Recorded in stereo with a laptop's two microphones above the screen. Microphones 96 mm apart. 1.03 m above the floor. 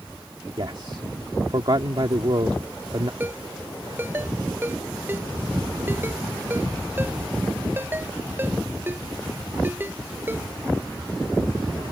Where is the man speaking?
55° right (ahead or behind).